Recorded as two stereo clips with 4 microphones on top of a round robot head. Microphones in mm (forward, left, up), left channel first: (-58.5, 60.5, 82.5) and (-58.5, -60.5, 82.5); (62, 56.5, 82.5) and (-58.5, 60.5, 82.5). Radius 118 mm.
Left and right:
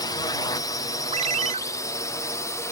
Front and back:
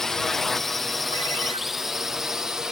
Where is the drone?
80° left; by 2.7 s 100° left.